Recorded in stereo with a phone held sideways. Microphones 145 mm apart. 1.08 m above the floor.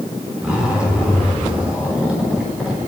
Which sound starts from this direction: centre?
A zipper, at 0.4 s.